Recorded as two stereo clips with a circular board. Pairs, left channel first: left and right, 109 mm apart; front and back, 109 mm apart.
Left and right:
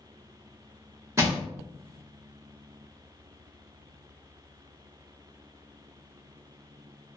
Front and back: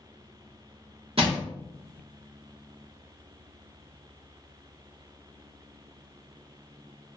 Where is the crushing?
150° right, 1.0 m.